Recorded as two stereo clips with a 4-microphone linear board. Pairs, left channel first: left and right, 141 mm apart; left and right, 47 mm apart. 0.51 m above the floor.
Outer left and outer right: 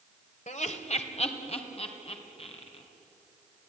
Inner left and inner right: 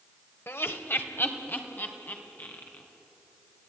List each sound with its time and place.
0.5 s laughter: 60° left (ahead or behind), 1.9 m; by 2.8 s 40° left (ahead or behind), 4.5 m